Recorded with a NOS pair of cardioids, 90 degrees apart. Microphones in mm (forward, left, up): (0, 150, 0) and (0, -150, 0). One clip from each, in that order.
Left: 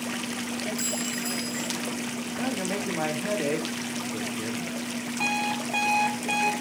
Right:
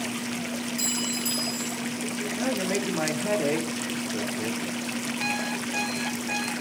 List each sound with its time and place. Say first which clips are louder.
0.8 s a clink: right 2 dB; 5° left, 2.5 m
2.4 s a man speaking: right 2 dB; 5° right, 2.5 m
5.2 s an alarm clock: left 4 dB; 35° left, 3 m